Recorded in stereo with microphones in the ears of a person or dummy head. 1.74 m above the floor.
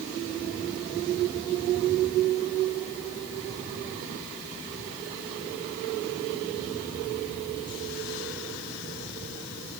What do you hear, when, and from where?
Only background noise.